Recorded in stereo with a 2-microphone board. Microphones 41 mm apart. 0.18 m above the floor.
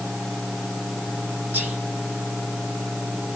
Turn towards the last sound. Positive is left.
turn(degrees=-50)  # may be behind; listen again after turning